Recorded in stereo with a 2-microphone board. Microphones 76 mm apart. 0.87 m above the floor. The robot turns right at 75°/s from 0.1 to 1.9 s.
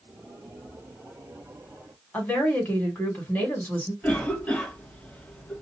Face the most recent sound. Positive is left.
turn(degrees=15)  # may be behind; listen again after turning